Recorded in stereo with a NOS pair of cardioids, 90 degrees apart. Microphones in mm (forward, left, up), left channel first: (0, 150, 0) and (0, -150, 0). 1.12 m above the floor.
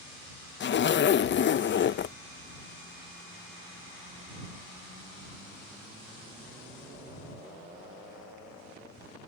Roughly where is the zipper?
Ahead left.